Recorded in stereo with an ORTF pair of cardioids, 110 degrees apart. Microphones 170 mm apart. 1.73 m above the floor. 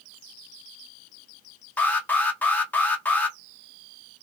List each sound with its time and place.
1.8 s an alarm: 10° left, 0.6 m